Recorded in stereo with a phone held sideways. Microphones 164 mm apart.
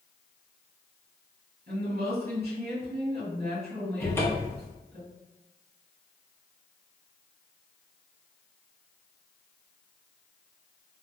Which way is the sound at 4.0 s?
15° left (ahead or behind).